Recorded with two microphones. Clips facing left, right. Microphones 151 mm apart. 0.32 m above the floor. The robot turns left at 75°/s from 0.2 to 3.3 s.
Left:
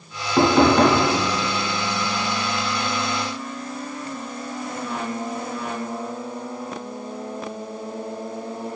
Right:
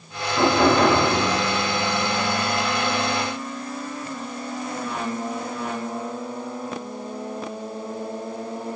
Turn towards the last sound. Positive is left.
turn(degrees=-115)